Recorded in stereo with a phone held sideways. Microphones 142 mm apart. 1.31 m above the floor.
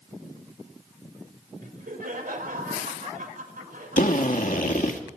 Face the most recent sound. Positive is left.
turn(degrees=70)  # may be behind; listen again after turning